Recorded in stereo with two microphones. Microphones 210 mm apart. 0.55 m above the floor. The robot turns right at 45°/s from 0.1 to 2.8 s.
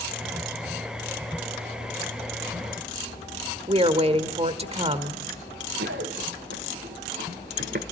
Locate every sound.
3.7 s a woman speaking: 30° right (ahead or behind), 1.4 m
5.8 s running footsteps: 80° right, 4.5 m; by 7.8 s 55° right (ahead or behind), 3 m